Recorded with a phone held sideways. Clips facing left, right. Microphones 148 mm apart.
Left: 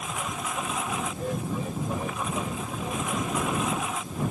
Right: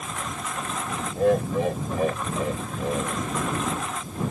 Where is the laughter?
80° right.